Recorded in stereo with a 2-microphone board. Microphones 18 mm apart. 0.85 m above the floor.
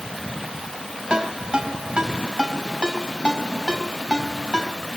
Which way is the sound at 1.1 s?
45° right (ahead or behind).